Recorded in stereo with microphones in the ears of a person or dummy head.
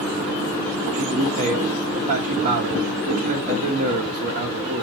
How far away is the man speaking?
About 1.5 m.